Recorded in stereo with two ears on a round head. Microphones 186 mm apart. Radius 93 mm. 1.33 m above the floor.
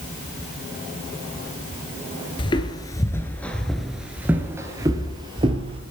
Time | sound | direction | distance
2.4 | footsteps | 25° left (ahead or behind) | 1.4 m